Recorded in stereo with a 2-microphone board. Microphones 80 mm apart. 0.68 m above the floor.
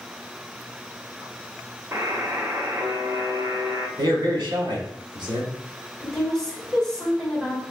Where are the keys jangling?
No keys jangling in this recording.